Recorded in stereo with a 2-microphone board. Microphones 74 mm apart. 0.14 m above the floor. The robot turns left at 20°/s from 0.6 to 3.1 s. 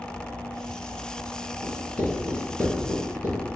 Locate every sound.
1.6 s writing: 20° right (ahead or behind), 1.6 m; by 3.4 s 30° right (ahead or behind), 1.6 m